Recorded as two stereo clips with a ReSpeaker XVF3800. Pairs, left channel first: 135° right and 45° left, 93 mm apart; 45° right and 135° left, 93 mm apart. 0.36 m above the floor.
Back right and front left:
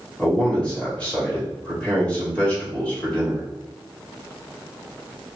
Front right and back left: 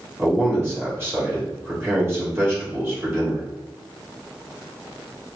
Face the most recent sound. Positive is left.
turn(degrees=160)